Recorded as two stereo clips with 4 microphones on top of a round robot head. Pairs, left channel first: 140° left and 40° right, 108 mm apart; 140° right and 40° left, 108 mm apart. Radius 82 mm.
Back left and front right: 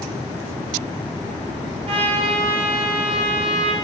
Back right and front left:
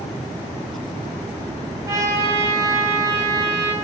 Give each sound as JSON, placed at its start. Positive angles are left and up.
{"t": 1.9, "sound": "a trumpet", "azimuth_deg": -20, "distance_m": 2.5}